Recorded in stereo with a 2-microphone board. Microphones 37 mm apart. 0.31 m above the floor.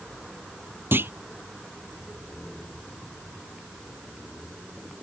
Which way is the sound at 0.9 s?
85° right.